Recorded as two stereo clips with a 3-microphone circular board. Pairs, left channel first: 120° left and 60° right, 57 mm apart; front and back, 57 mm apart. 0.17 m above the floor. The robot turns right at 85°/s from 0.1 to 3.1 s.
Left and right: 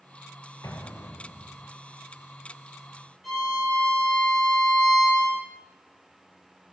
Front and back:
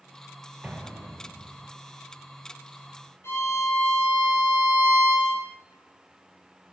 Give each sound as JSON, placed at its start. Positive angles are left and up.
{"t": 0.6, "sound": "an explosion", "azimuth_deg": 110, "distance_m": 0.8}
{"t": 3.2, "sound": "a violin", "azimuth_deg": 35, "distance_m": 3.5}